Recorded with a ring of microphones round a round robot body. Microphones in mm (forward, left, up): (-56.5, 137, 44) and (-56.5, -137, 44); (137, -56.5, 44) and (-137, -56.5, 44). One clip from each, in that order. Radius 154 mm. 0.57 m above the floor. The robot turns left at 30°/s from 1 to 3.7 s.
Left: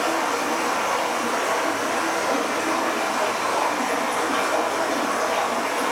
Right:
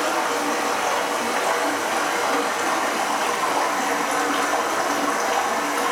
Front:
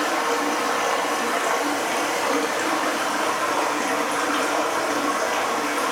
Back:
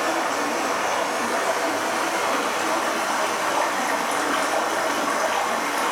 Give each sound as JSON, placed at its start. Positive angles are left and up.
{"t": 0.0, "sound": "running water", "azimuth_deg": -45, "distance_m": 2.5}